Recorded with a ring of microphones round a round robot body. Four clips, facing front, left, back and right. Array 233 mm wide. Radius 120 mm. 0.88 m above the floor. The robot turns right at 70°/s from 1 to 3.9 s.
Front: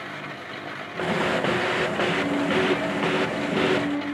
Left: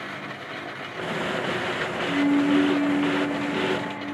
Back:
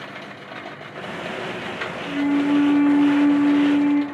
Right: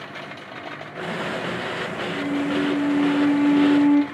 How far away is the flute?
About 2 m.